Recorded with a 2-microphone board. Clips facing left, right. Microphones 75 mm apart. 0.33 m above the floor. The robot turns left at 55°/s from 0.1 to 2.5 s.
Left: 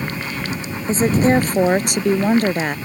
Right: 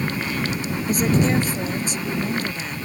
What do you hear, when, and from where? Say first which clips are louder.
0.9 s a woman speaking: left 5 dB; 155° left; by 2.8 s 65° left